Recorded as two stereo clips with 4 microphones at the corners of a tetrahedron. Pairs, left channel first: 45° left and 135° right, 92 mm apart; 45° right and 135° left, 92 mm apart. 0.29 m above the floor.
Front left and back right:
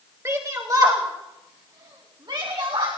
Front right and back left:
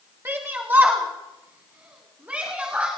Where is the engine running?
No engine running in this recording.